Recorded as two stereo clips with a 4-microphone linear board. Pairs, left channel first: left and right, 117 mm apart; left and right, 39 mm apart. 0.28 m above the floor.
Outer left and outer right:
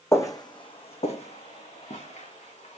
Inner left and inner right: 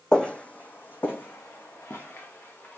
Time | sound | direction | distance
0.1 | footsteps | 25° left (ahead or behind) | 0.6 m